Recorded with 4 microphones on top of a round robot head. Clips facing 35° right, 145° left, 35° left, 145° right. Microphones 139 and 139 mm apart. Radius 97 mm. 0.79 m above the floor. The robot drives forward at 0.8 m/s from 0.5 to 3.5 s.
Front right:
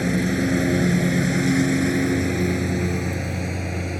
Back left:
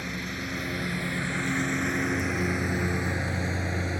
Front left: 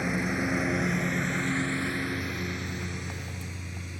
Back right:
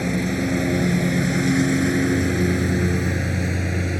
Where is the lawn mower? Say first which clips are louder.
Front right 14 dB, back right 7 dB; 75° right; by 4.0 s 115° right.